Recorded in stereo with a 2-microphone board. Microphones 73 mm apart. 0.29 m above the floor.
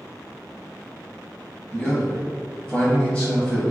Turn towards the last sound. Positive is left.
turn(degrees=15)  # may be behind; listen again after turning